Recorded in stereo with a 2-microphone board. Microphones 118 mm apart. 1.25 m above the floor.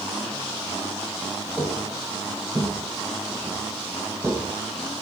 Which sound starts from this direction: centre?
Footsteps, at 1.6 s.